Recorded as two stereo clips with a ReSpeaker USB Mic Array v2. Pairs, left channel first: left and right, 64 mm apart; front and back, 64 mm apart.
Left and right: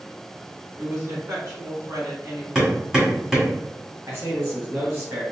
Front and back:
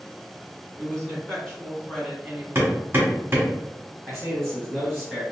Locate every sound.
0.8 s a woman speaking: 65° right, 1.9 m; by 2.5 s 95° right, 1.5 m
2.5 s hammering: 165° right, 1.4 m
4.1 s a man speaking: 95° right, 1.2 m